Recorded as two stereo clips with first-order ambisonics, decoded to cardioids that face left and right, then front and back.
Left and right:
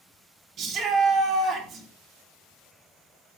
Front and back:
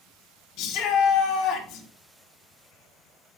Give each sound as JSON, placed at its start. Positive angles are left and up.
{"t": 0.6, "sound": "a shout", "azimuth_deg": -35, "distance_m": 4.5}